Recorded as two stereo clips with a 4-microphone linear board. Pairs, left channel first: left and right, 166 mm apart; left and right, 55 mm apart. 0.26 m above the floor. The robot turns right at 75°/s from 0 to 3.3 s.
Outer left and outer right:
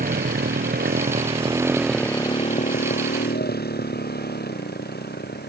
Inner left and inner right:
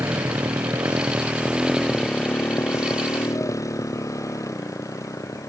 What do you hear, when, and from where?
0.0 s a motorcycle: 60° right (ahead or behind); by 5.5 s 90° left